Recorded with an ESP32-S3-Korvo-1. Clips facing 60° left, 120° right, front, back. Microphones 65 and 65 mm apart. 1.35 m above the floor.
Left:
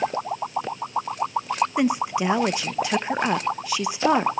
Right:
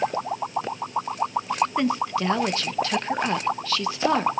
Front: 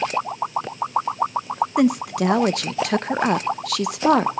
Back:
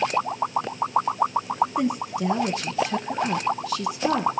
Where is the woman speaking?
15° right, 1.0 m.